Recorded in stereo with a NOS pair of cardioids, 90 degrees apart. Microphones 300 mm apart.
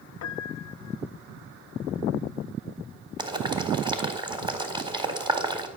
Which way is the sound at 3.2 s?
15° right.